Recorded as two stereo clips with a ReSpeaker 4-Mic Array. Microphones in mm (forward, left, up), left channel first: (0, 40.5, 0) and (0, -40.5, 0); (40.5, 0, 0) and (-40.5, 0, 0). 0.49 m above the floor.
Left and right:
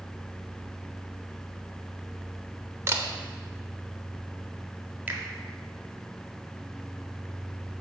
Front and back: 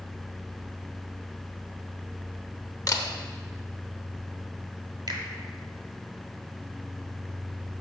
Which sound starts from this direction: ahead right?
A camera shutter, at 2.9 s.